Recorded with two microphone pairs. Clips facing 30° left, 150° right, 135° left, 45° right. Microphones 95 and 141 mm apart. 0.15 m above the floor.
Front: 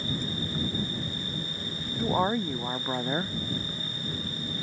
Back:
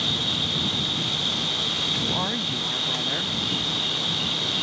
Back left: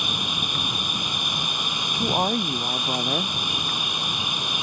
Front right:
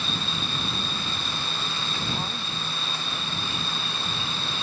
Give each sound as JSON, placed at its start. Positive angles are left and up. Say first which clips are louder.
{"t": 0.0, "sound": "an insect", "louder": "back 2 dB, back left 1 dB", "azimuth_deg": -155}
{"t": 2.0, "sound": "a woman speaking", "louder": "front 5 dB, back left 13 dB", "azimuth_deg": 100}